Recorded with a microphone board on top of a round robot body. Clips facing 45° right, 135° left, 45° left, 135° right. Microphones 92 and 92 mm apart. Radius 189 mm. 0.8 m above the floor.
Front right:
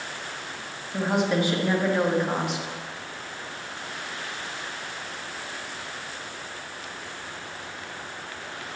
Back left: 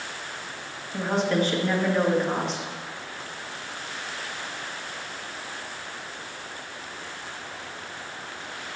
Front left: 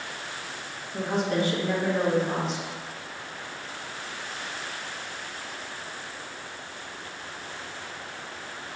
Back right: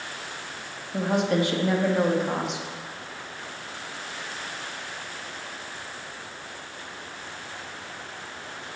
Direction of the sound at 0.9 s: 120° right.